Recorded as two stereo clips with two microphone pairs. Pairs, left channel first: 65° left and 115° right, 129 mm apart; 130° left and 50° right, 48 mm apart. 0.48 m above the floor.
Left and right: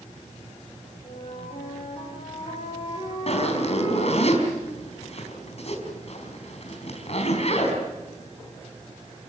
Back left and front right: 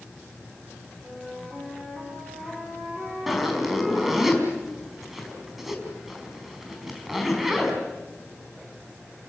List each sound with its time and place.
1.0 s a flute: 20° left, 8 m
3.3 s a zipper: 35° left, 4 m